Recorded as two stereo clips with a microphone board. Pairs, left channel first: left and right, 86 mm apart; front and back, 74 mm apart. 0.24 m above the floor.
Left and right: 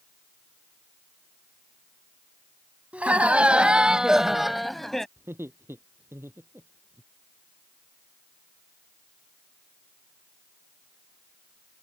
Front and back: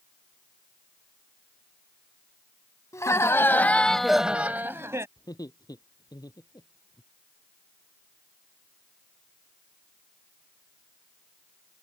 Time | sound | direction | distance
2.9 | laughter | 20° right | ?
5.2 | laughter | 30° right | ?